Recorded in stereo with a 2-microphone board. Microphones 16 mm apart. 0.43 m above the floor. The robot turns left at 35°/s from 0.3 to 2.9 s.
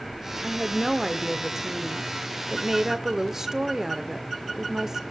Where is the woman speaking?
5° right (ahead or behind), 1.3 m; by 5.0 s 25° right (ahead or behind), 1.3 m.